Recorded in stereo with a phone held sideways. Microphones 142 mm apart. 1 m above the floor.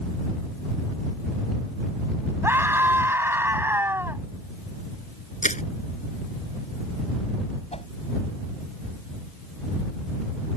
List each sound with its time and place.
2.4 s a scream: 15° right (ahead or behind)
5.4 s crushing: 60° left (ahead or behind)
7.7 s a whoosh: 45° left (ahead or behind)